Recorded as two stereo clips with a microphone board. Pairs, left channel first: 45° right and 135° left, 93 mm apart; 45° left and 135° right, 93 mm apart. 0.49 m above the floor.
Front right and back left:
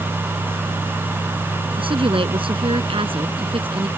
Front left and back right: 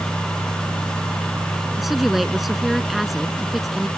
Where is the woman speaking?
135° left.